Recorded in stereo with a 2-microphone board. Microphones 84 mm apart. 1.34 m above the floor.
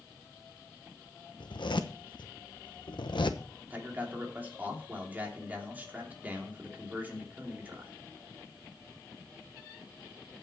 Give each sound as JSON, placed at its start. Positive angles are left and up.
{"t": 1.4, "sound": "a zipper", "side_deg": 75, "distance_m": 1.0}
{"t": 3.7, "sound": "a man speaking", "side_deg": -20, "distance_m": 2.5}